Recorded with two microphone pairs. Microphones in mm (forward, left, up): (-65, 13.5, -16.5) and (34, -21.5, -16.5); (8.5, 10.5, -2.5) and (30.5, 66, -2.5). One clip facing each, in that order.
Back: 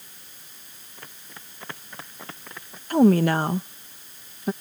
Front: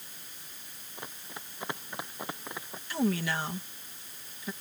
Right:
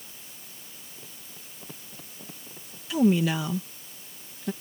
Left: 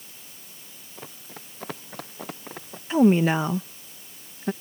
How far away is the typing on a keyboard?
No typing on a keyboard in this recording.